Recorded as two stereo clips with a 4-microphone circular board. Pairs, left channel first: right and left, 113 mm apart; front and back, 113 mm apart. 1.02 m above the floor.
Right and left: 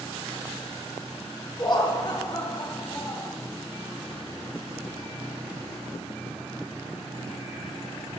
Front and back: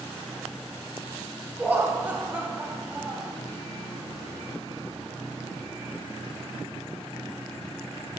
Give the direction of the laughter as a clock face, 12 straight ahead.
4 o'clock.